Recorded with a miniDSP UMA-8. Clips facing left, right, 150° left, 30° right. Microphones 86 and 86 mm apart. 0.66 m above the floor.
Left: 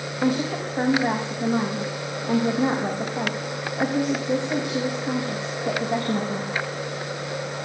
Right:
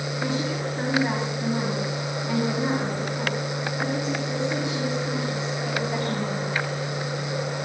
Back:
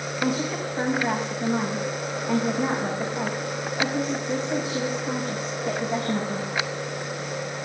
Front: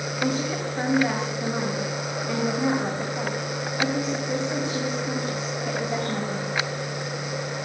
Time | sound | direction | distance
0.2 | a woman speaking | 65° left | 4 m